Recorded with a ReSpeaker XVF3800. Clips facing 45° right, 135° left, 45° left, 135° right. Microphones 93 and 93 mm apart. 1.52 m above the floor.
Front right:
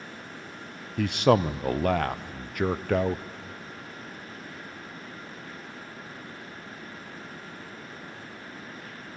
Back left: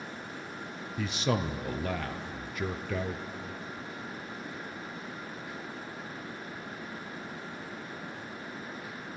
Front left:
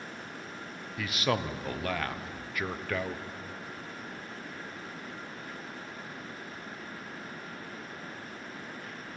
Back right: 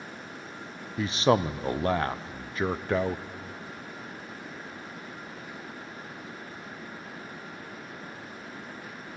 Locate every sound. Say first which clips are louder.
1.0 s a man speaking: front right 9 dB, back right 7 dB; 75° right, 0.6 m